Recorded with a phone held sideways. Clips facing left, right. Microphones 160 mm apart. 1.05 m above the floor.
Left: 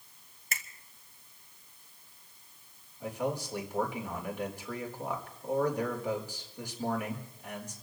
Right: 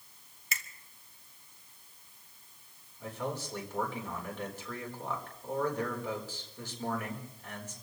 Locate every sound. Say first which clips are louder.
0.5 s a finger snap: left 1 dB; 50° left (ahead or behind), 1.7 m
3.0 s a man speaking: left 4 dB; 15° left (ahead or behind), 4 m